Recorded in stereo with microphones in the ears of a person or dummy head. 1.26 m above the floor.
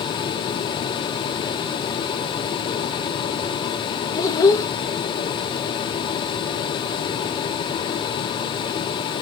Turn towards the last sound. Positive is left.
turn(degrees=20)  # may be behind; listen again after turning